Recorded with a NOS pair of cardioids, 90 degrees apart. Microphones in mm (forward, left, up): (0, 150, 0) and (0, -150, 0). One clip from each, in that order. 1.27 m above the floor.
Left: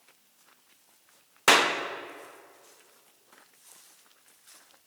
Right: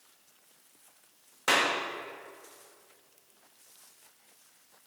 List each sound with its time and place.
1.5 s a clap: 45° left, 1.1 m